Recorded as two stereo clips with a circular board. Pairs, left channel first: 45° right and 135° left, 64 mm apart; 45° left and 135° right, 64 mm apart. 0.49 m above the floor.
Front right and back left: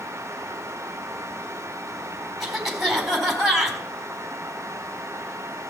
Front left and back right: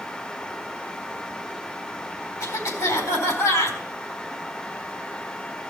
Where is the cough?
50° left, 4.5 m.